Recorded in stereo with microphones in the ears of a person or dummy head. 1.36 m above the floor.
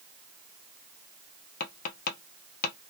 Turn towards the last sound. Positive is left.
turn(degrees=55)  # may be behind; listen again after turning